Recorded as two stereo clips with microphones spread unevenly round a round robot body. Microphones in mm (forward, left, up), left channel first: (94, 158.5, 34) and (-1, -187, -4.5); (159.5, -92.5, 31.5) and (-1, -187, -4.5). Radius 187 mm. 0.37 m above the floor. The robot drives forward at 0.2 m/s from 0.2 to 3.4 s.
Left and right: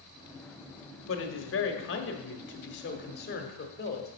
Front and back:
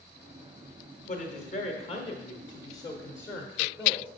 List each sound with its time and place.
1.1 s a woman speaking: 55° left, 0.9 m; by 4.1 s 120° left, 0.9 m